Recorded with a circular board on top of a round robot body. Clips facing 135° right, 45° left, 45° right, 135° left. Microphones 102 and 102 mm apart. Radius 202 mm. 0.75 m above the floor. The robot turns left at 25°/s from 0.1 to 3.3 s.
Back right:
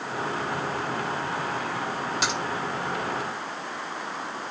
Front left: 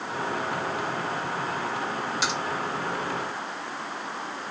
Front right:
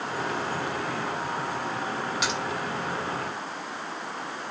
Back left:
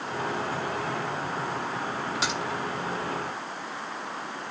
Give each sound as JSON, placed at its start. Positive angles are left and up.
{"t": 2.2, "sound": "a crack", "azimuth_deg": -170, "distance_m": 4.5}